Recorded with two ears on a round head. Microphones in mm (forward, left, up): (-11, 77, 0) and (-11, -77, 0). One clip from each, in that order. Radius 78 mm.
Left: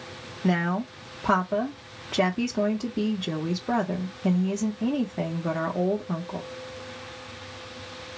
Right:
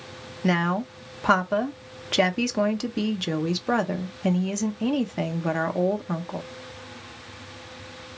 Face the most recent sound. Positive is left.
turn(degrees=-60)  # may be behind; listen again after turning